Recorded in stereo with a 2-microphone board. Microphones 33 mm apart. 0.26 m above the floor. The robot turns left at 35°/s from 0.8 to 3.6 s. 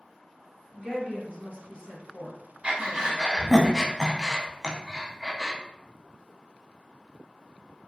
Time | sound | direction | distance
0.7 | a woman speaking | 20° left (ahead or behind) | 2.0 m
2.6 | breathing | 30° right (ahead or behind) | 0.5 m